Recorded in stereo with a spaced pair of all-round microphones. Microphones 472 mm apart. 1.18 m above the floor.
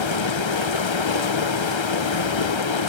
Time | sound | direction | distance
0.0 | running water | 70° left (ahead or behind) | 0.7 m